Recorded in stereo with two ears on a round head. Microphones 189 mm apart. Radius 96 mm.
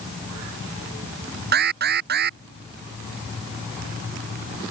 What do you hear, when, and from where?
1.5 s an alarm: 45° right (ahead or behind)